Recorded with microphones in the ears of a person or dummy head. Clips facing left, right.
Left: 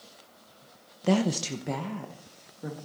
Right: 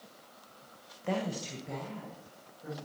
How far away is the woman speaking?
About 0.7 m.